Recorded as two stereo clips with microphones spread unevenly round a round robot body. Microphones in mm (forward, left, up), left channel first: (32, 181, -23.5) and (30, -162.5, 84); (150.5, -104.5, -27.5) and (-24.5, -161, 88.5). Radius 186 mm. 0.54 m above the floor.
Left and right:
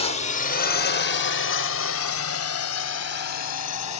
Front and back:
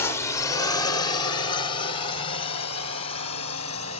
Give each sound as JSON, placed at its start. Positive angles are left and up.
{"t": 0.0, "sound": "a drone", "azimuth_deg": 45}